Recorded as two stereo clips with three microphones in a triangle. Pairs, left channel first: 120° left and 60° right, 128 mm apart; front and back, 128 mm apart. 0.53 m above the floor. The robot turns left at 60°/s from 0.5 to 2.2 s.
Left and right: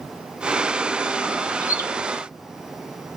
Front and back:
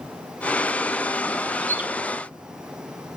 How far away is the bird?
About 1.1 m.